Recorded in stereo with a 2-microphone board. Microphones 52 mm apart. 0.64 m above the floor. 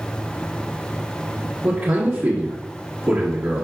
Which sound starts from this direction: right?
A man speaking, at 1.6 s.